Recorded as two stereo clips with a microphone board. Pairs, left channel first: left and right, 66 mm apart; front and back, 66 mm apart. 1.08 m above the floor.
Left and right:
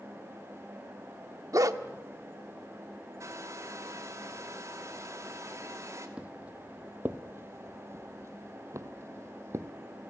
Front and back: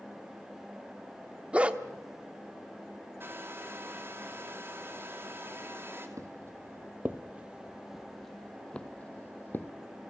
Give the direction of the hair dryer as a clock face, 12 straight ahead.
4 o'clock.